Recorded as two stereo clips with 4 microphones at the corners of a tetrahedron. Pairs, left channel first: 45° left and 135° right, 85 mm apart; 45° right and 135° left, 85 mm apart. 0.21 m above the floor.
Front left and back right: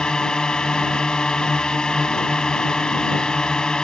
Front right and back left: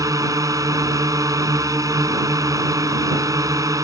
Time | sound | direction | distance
0.0 | a drone | 125° left | ?